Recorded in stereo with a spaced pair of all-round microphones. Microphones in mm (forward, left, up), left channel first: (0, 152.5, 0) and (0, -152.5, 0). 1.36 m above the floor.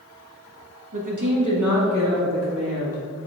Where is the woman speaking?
80° right, 1.4 m; by 3.0 s 50° right (ahead or behind), 3 m.